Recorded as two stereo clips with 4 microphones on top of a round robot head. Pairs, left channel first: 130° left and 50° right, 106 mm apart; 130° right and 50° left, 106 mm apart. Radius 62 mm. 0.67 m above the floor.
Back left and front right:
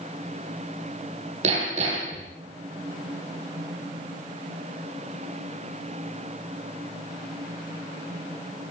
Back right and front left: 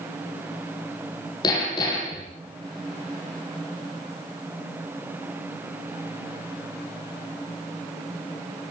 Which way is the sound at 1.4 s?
75° right.